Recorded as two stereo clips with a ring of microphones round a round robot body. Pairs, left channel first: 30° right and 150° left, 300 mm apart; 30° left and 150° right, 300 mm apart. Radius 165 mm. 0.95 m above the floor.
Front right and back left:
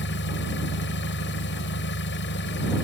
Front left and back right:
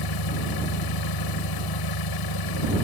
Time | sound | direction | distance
0.0 | an engine running | 25° left | ?